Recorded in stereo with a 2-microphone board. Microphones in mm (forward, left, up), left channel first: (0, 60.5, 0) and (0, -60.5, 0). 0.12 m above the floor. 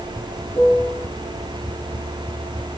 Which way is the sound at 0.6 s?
35° left (ahead or behind).